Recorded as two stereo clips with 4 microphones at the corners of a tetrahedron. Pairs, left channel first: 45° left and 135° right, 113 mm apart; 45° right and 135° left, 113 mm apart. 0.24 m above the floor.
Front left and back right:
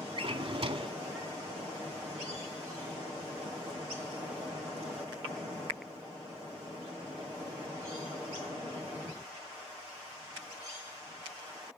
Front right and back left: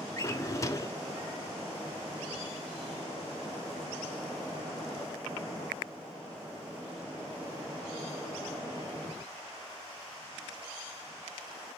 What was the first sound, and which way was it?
A drawer, 105° right.